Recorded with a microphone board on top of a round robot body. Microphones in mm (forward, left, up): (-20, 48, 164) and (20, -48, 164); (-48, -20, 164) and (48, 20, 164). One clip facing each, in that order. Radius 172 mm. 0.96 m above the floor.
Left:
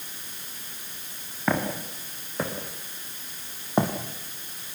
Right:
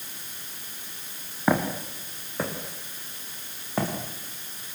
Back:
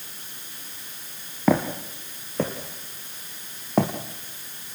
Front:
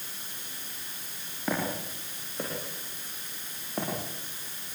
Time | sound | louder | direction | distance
1.5 | footsteps | right 2 dB, back 9 dB | 145° right | 3.5 m